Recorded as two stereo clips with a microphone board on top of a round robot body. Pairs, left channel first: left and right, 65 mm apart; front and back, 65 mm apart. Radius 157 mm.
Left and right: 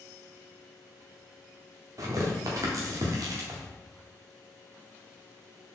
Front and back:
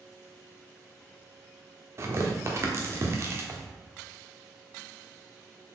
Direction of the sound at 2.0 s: 130° right.